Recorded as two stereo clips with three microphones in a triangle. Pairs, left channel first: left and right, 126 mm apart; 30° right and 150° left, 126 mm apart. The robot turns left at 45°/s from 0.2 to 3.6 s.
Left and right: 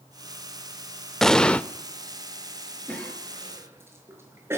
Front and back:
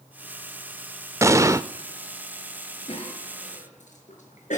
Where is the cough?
15° left, 6.5 m; by 4.6 s 20° right, 6.5 m.